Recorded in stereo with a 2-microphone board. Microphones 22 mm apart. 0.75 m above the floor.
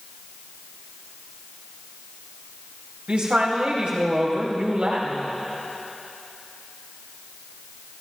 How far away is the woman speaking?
About 5 m.